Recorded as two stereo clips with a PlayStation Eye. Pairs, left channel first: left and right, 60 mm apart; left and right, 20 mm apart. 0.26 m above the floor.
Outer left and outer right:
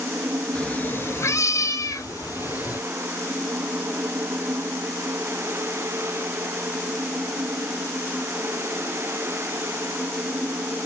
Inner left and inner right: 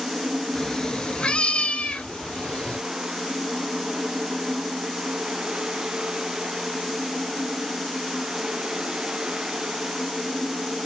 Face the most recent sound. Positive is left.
turn(degrees=90)